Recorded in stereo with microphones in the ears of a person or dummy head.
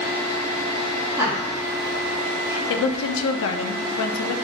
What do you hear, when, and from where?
1.2 s laughter: 15° right (ahead or behind), 1.1 m
2.7 s a woman speaking: 80° left, 0.5 m